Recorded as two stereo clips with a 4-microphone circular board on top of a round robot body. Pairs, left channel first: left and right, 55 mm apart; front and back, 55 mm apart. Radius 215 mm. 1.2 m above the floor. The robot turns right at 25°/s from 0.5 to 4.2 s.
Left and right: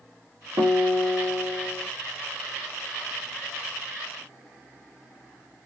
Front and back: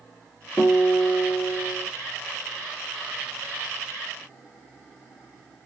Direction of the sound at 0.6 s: 75° right.